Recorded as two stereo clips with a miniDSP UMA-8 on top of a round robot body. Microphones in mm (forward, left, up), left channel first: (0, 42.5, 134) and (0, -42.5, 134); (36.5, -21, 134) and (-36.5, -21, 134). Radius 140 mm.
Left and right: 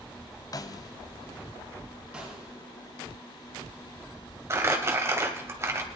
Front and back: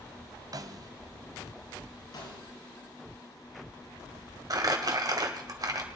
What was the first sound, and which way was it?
A snare drum, 140° left.